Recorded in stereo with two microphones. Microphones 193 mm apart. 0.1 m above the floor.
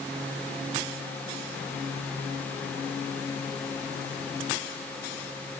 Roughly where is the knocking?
No knocking in this recording.